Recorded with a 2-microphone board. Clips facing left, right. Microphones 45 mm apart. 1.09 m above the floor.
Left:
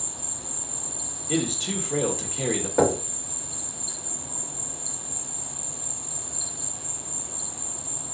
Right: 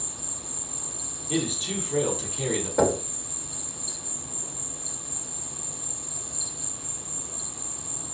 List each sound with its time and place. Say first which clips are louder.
0.0 s an insect: left 1 dB; 60° left (ahead or behind), 1.6 m
1.3 s a man speaking: left 1 dB; 70° left (ahead or behind), 1.4 m
2.8 s knocking: left 1 dB; 20° left (ahead or behind), 1.1 m